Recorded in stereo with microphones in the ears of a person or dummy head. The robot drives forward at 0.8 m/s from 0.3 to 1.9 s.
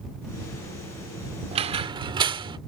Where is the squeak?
35° right (ahead or behind); by 2.6 s 25° right (ahead or behind).